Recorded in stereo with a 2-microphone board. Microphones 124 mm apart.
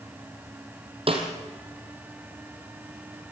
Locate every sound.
1.1 s a snare drum: 50° right (ahead or behind), 3.5 m